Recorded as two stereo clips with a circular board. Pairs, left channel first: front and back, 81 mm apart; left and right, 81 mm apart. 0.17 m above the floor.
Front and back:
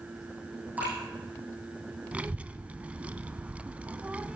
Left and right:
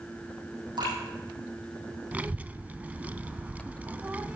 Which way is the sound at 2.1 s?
130° right.